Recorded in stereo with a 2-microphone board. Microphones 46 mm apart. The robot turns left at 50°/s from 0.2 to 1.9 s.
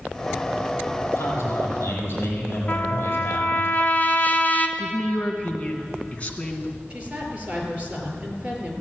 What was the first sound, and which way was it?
A man speaking, 95° left.